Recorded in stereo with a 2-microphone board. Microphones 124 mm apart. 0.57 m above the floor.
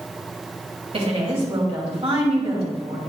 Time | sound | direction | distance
0.9 | a woman speaking | 55° right (ahead or behind) | 3 m